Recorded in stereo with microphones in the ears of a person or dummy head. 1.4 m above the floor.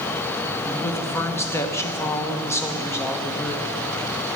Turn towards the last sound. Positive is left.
turn(degrees=15)  # may be behind; listen again after turning